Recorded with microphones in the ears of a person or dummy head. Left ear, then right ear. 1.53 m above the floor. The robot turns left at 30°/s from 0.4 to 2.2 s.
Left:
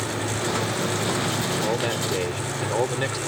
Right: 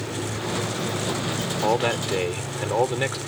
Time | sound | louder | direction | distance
1.6 | a man speaking | right 2 dB | 40° right (ahead or behind) | ?